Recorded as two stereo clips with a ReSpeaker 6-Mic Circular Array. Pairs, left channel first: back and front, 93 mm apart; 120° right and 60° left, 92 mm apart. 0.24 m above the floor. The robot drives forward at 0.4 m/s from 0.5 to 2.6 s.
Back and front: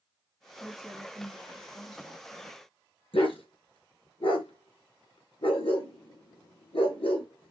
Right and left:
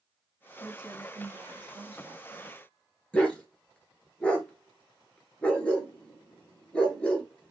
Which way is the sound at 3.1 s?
160° left.